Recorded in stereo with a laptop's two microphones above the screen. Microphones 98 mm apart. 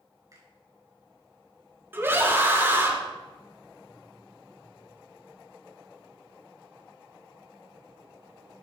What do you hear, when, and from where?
0.3 s a finger snap: 35° right (ahead or behind), 6 m
1.9 s a scream: 25° right (ahead or behind), 4 m